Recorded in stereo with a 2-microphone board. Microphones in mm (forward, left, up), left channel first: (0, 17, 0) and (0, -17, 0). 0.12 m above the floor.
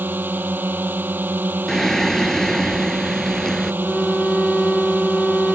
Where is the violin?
15° left (ahead or behind).